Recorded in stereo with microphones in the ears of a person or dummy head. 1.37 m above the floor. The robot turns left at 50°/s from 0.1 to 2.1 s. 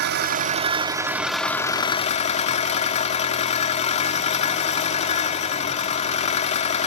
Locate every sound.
0.0 s an engine running: 120° right, 1.7 m; by 6.9 s 140° left, 1.7 m